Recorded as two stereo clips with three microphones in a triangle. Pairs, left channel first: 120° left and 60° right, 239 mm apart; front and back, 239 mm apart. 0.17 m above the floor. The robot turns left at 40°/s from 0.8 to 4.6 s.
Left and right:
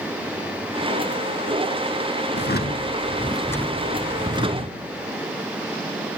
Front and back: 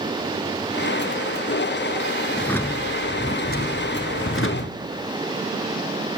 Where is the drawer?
90° left, 1.5 m; by 4.8 s straight ahead, 1.5 m.